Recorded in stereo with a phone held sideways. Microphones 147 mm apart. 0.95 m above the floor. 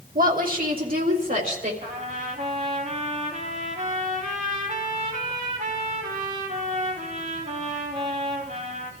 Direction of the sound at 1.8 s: 75° right (ahead or behind).